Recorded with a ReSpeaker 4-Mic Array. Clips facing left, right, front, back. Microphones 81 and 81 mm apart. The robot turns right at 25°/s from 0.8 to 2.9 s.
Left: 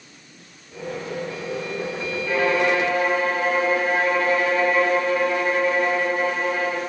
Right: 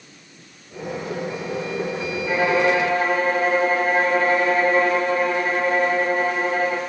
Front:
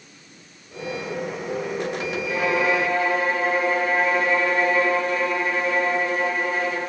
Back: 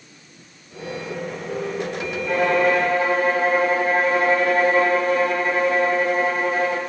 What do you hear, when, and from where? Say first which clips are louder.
2.3 s a violin: right 1 dB, back 4 dB; 160° right, 0.8 m; by 6.8 s 140° right, 0.8 m